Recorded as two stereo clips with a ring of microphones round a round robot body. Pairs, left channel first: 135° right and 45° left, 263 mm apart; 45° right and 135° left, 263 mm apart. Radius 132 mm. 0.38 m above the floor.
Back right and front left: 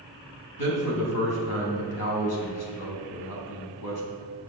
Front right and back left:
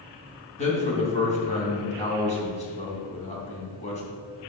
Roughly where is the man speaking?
Right.